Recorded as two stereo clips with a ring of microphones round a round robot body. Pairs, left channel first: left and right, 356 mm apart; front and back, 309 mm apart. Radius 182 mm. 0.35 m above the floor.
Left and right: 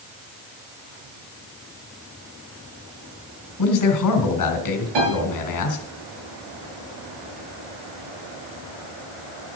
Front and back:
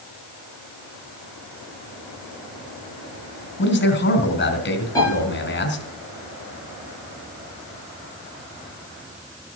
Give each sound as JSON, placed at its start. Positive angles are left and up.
{"t": 3.6, "sound": "a man speaking", "azimuth_deg": 55, "distance_m": 3.5}
{"t": 5.0, "sound": "a piano", "azimuth_deg": -80, "distance_m": 8.0}